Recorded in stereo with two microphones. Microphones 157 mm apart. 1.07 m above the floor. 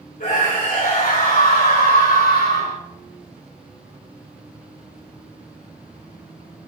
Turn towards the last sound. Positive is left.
turn(degrees=85)